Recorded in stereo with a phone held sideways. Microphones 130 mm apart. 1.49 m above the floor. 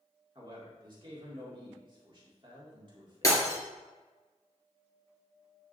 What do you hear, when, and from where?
0.3 s a man speaking: 40° right (ahead or behind), 2 m
3.2 s breaking glass: 25° left (ahead or behind), 2.0 m